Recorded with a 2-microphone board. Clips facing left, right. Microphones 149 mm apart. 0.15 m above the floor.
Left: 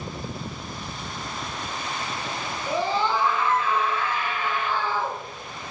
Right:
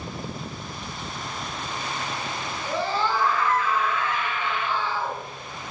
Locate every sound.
2.7 s a scream: 10° left (ahead or behind), 2.5 m; by 5.2 s 45° left (ahead or behind), 2.5 m